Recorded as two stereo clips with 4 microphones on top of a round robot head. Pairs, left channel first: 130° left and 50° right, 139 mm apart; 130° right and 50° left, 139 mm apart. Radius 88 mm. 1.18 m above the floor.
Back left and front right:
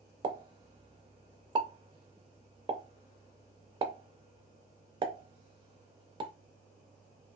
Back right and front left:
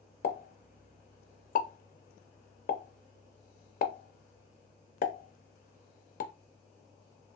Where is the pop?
105° right, 0.5 m.